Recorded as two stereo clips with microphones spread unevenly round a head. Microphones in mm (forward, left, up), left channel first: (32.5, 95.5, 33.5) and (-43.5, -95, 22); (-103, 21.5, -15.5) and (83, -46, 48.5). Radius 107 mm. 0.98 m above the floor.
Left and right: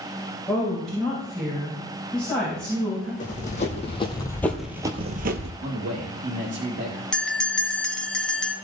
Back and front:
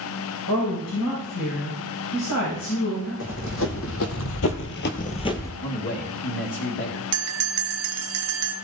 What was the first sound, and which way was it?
A woman speaking, 155° left.